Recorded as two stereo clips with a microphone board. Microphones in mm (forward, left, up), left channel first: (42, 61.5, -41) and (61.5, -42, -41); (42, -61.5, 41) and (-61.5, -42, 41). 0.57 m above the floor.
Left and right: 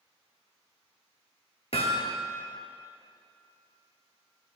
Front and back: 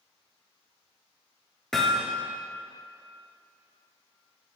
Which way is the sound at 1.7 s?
75° left.